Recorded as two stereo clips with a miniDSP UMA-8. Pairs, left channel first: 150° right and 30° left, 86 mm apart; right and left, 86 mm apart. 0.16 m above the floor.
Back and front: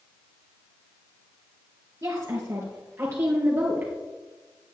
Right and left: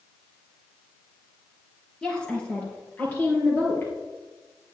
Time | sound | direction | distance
2.0 | a woman speaking | 10° right | 3 m